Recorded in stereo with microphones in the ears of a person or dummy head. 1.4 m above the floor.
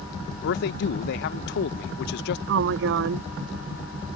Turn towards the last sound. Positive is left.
turn(degrees=-65)  # may be behind; listen again after turning